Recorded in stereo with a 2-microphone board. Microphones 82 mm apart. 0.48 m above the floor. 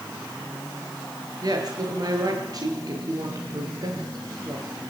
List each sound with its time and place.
1.4 s a woman speaking: 45° right (ahead or behind), 9 m